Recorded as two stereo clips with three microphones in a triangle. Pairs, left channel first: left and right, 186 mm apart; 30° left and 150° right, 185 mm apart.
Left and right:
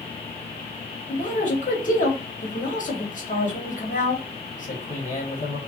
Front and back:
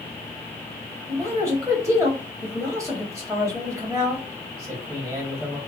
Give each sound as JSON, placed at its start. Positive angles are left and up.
{"t": 1.1, "sound": "a man speaking", "azimuth_deg": 135, "distance_m": 1.1}